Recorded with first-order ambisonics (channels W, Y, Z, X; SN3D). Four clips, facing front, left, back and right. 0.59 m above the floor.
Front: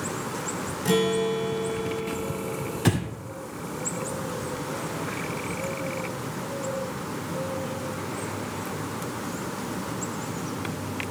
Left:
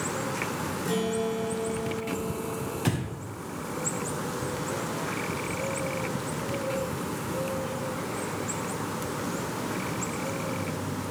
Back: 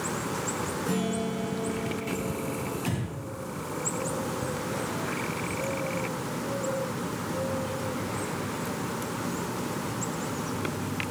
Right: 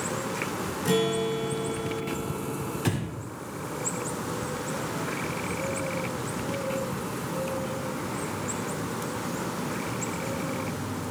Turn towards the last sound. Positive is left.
turn(degrees=0)